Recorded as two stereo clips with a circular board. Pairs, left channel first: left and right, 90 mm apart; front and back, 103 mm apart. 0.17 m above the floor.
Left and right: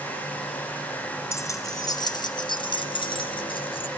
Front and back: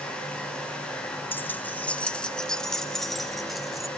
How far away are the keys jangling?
About 1.0 m.